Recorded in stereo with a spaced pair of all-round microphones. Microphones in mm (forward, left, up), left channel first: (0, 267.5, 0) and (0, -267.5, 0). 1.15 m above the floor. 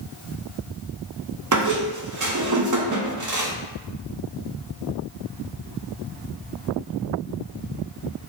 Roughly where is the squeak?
Right.